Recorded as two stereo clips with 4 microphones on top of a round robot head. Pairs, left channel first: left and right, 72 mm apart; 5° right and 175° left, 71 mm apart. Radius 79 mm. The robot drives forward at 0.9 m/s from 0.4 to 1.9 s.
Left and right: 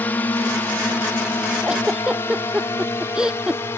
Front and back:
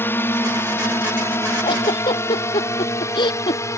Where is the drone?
35° left.